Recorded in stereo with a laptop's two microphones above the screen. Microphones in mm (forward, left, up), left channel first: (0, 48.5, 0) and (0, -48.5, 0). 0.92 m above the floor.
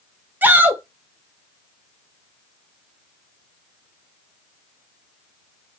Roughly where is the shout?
Centre.